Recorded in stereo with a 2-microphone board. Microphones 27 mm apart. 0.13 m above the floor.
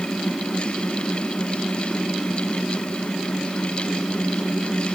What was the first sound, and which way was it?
Only background noise.